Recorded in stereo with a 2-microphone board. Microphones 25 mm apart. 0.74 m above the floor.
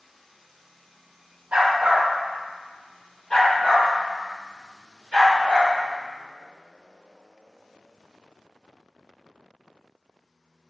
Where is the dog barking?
60° right (ahead or behind), 0.9 m; by 5.7 s 60° left (ahead or behind), 2.5 m.